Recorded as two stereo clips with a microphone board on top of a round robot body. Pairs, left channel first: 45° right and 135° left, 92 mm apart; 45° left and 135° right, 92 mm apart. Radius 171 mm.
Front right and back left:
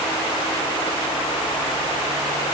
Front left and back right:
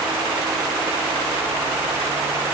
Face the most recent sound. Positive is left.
No sound to turn to.